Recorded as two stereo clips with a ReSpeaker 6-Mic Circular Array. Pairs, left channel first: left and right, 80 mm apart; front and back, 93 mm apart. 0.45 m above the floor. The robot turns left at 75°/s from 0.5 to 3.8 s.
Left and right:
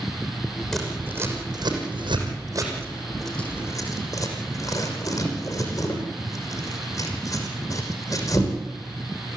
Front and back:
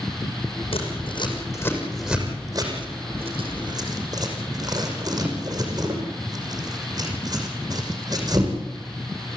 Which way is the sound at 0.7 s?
Straight ahead.